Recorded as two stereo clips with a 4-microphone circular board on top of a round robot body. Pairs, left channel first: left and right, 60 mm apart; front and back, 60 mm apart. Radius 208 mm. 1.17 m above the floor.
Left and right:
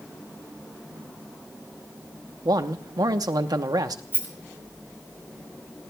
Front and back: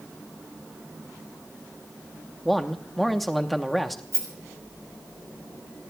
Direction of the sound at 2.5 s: 85° right.